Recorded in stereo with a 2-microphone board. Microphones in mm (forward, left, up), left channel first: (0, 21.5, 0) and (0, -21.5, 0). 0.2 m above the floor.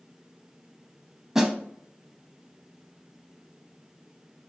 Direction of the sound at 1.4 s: 10° right (ahead or behind).